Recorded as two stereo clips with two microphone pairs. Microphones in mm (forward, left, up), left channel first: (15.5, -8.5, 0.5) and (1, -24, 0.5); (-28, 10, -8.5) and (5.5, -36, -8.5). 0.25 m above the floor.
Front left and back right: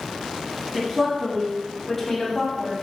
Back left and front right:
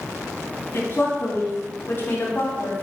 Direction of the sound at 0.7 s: 145° left.